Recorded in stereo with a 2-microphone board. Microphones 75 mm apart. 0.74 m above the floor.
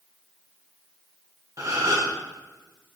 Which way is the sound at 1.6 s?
45° right (ahead or behind).